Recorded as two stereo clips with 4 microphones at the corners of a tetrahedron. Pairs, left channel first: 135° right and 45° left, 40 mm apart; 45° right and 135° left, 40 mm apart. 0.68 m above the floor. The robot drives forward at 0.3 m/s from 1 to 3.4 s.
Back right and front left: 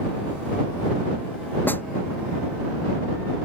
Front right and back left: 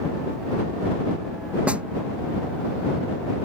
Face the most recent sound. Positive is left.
turn(degrees=-165)